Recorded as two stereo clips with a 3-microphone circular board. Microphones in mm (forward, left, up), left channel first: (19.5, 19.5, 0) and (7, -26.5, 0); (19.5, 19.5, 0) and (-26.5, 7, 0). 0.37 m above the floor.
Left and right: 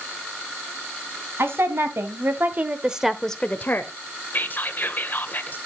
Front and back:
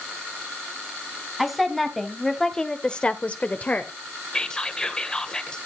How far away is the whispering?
About 1.6 m.